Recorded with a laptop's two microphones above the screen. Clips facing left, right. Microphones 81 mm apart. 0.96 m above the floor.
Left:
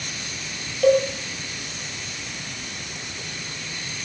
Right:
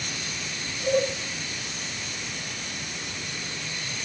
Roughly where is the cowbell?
Left.